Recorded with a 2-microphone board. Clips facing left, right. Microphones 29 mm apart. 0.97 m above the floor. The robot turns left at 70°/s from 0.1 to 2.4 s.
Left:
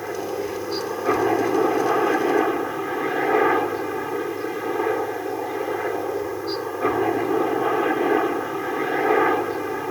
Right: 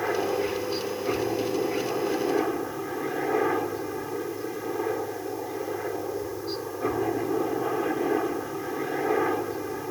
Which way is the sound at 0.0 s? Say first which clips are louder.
Right 1 dB; 160° right.